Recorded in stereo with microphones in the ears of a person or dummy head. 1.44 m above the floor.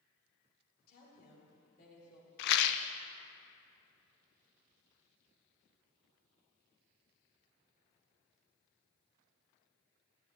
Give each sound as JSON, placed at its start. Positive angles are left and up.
{"t": 0.9, "sound": "a woman speaking", "side_deg": 60, "distance_m": 4.5}
{"t": 2.4, "sound": "a rattle", "side_deg": 55, "distance_m": 0.5}